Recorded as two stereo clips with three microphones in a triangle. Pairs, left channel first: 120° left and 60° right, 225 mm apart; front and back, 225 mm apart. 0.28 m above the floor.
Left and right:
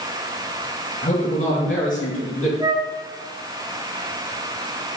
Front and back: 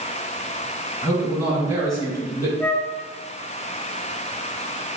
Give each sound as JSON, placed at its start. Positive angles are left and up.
{"t": 1.0, "sound": "a man speaking", "azimuth_deg": 70, "distance_m": 2.0}
{"t": 2.6, "sound": "a flute", "azimuth_deg": -60, "distance_m": 1.1}